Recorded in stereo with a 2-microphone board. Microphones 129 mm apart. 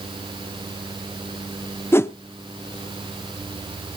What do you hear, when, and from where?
1.9 s a whoosh: 20° left (ahead or behind), 0.6 m